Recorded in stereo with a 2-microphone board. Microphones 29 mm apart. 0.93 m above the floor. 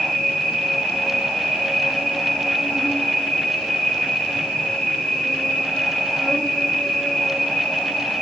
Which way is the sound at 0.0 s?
35° left (ahead or behind).